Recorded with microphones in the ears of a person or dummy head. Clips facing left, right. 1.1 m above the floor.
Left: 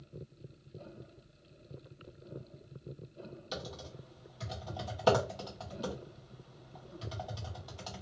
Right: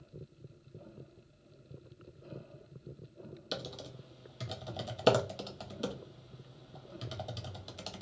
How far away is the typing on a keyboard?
About 0.5 m.